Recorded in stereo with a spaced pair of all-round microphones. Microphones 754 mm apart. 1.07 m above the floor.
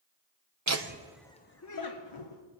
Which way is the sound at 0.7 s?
25° right (ahead or behind).